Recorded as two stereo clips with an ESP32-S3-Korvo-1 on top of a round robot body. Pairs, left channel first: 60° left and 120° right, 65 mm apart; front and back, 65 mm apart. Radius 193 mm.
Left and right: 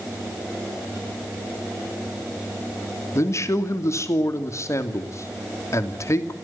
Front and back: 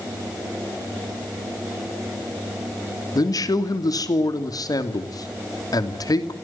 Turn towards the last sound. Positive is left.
turn(degrees=20)